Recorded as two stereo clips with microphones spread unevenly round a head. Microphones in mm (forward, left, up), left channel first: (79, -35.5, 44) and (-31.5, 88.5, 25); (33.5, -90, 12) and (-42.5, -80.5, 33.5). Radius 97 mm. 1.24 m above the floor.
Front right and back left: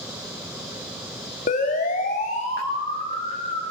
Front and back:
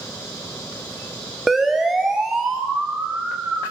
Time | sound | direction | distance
1.5 | a siren | 100° right | 3.5 m